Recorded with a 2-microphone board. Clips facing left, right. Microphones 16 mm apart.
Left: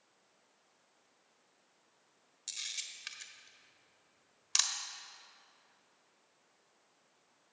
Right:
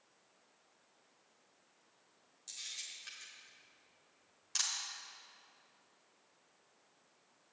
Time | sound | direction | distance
2.5 | a camera shutter | 35° left (ahead or behind) | 1.2 m